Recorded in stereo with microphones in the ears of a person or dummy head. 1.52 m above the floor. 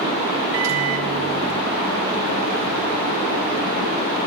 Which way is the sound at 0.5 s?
65° right (ahead or behind).